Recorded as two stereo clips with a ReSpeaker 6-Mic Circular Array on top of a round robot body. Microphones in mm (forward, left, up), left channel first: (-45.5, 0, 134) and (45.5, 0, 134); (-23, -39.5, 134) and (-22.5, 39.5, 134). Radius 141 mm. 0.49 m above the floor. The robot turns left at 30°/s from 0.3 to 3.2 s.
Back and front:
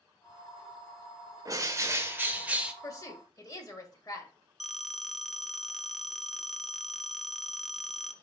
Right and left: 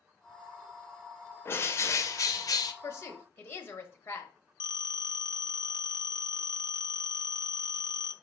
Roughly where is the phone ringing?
Right.